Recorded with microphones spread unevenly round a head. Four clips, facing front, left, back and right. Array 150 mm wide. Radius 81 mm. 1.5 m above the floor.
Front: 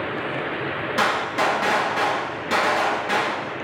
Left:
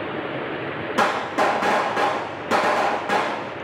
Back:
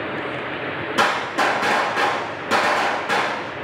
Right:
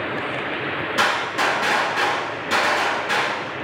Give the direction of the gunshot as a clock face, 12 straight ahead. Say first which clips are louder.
Left 2 dB, back 2 dB; 9 o'clock.